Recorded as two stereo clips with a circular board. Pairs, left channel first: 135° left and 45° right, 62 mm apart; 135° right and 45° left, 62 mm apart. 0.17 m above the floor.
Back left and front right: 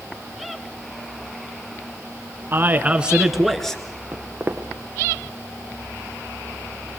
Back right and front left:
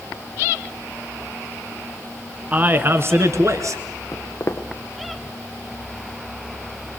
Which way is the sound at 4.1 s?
105° right.